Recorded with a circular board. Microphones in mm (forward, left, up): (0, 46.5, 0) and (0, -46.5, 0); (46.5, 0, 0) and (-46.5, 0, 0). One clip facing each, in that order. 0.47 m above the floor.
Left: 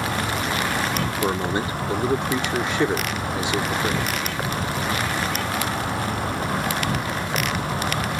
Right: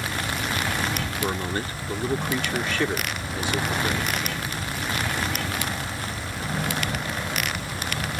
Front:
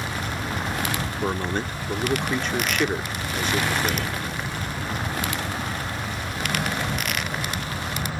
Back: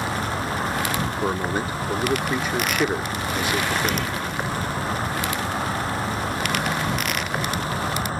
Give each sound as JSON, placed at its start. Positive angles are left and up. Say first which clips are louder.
{"t": 0.0, "sound": "an insect", "louder": "left 4 dB, back 4 dB", "azimuth_deg": 125}
{"t": 1.2, "sound": "a man speaking", "louder": "left 4 dB, even", "azimuth_deg": 115}